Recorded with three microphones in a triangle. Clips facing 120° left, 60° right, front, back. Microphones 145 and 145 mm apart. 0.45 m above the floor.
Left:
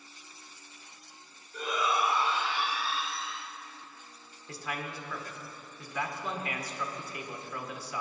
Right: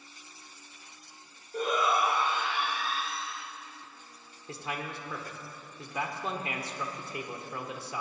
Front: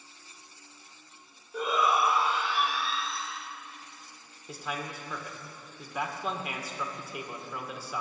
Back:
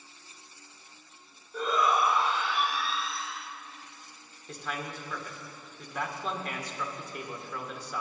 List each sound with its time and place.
1.5 s a shout: 75° right, 1.3 m; by 3.5 s 90° right, 2.5 m
4.5 s a man speaking: 75° right, 1.5 m